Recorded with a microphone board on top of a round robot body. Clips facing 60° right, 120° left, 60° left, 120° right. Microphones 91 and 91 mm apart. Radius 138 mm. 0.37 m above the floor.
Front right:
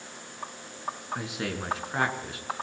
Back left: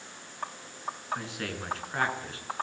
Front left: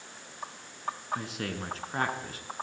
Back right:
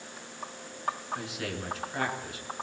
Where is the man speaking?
15° left, 6.5 m.